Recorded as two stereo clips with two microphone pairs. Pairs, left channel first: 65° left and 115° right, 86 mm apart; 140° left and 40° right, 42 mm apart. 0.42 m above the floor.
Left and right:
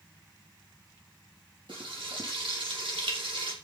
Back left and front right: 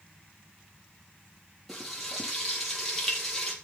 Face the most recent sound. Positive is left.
turn(degrees=-130)